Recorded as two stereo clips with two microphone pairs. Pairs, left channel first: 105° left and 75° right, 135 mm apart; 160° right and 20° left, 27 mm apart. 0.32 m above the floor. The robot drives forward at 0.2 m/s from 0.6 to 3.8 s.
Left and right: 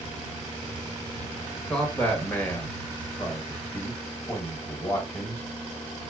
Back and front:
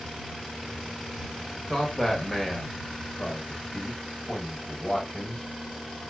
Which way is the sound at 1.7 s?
155° left.